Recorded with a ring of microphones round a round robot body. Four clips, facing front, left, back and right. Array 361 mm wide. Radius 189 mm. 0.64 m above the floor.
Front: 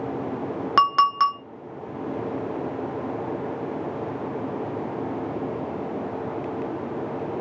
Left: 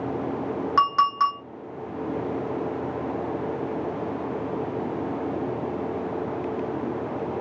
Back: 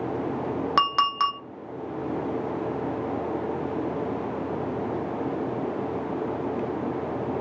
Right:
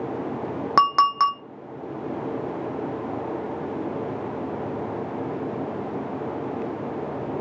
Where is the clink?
75° right, 0.7 m.